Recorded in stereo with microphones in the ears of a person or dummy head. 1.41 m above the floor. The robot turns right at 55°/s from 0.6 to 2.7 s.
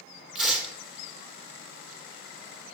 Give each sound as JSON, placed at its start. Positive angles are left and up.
{"t": 0.3, "sound": "tearing paper", "side_deg": 0, "distance_m": 2.0}